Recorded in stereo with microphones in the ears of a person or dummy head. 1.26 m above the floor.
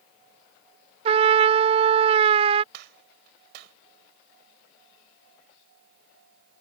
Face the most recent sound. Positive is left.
turn(degrees=-65)  # may be behind; listen again after turning